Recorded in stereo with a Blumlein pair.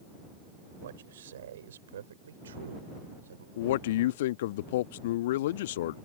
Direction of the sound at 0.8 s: 60° right.